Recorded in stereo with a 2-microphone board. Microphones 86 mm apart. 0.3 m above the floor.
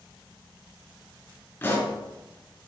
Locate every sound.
1.6 s a pop: 25° left (ahead or behind), 3 m